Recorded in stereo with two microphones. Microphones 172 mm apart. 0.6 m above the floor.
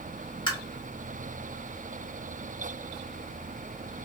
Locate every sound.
0.5 s tapping: 30° left (ahead or behind), 1.4 m